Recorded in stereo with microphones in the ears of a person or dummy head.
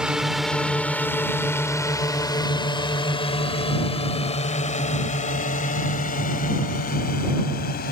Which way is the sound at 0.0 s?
5° right (ahead or behind).